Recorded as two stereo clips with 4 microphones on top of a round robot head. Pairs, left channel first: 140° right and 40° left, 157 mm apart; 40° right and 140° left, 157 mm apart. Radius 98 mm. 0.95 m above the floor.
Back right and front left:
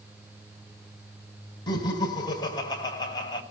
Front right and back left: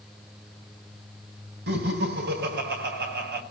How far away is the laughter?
About 5.5 m.